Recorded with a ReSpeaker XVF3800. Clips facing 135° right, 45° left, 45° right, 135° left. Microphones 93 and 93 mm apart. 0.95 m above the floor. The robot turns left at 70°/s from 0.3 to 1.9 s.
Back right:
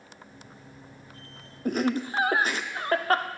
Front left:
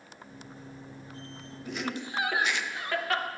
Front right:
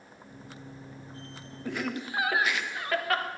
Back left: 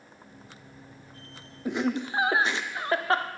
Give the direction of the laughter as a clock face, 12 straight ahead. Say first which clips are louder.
Back right 9 dB, back left 6 dB; 5 o'clock.